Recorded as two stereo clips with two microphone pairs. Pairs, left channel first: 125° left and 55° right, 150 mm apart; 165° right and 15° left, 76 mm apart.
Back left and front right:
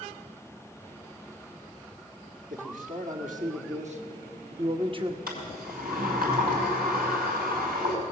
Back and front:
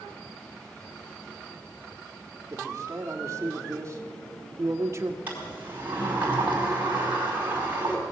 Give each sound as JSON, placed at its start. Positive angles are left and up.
{"t": 2.5, "sound": "a man speaking", "azimuth_deg": -35, "distance_m": 2.5}
{"t": 5.3, "sound": "a sliding door", "azimuth_deg": -50, "distance_m": 4.5}